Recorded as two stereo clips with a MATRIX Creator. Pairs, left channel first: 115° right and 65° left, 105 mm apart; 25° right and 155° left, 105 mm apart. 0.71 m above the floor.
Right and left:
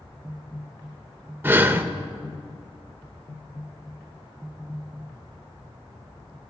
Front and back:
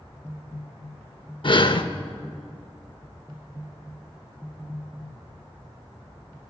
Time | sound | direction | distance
1.4 | breathing | straight ahead | 0.5 m